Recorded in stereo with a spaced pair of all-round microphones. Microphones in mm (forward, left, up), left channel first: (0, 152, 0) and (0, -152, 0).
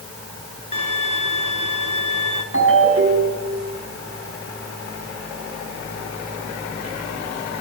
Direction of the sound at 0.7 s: 80° left.